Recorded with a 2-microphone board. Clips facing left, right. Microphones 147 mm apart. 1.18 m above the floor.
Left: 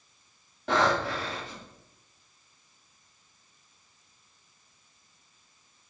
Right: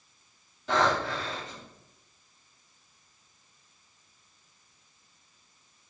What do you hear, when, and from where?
0.7 s breathing: 65° left (ahead or behind), 2 m